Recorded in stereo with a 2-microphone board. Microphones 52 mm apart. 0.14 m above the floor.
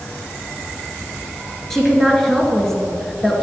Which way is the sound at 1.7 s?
5° left (ahead or behind).